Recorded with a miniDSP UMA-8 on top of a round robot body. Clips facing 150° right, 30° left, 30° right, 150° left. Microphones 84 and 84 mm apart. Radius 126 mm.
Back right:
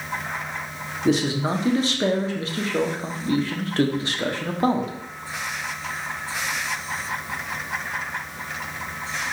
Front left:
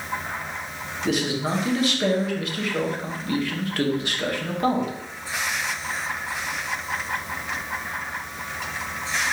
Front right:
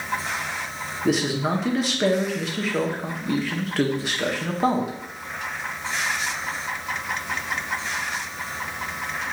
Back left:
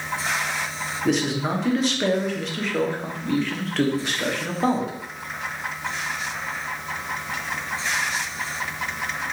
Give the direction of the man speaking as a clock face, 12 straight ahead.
4 o'clock.